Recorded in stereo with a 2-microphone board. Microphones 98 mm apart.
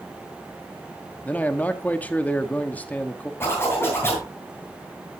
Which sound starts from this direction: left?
A zipper, at 3.4 s.